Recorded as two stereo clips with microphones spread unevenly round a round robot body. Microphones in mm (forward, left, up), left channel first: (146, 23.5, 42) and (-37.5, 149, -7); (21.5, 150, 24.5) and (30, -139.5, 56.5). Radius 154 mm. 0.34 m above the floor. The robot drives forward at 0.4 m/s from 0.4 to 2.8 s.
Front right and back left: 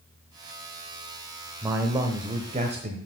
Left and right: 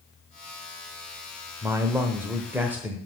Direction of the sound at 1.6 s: 175° right.